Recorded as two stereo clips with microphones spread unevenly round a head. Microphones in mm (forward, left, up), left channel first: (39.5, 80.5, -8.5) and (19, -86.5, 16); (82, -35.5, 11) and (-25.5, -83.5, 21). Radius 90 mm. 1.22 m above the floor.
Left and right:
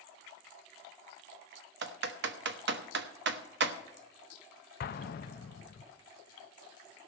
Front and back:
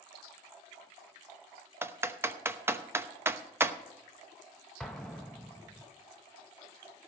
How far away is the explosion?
About 0.5 m.